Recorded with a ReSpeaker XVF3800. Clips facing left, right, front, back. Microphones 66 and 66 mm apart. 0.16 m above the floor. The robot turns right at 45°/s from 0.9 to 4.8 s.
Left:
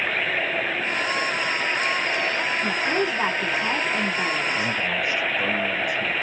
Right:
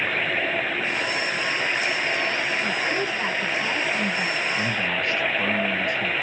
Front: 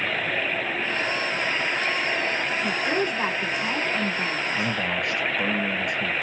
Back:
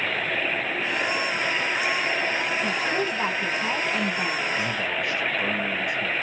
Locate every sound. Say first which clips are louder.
2.6 s a woman speaking: left 2 dB, front 1 dB; 55° left, 1.3 m; by 4.7 s 150° left, 1.3 m
4.5 s a man speaking: even, front 1 dB; 5° right, 3 m; by 6.1 s 5° left, 3 m